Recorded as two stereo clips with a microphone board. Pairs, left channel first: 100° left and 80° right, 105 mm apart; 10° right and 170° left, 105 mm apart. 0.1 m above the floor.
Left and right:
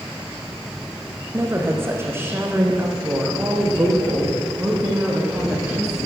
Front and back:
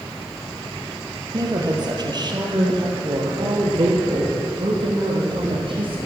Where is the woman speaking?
145° right, 3 m; by 6.0 s 155° right, 5.5 m.